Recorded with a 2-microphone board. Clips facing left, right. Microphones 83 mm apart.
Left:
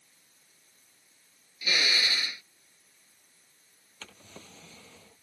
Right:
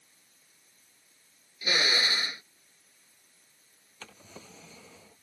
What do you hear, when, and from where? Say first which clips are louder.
1.6 s a drill: right 2 dB; 30° right (ahead or behind)
4.0 s a drawer: right 1 dB; 5° right (ahead or behind)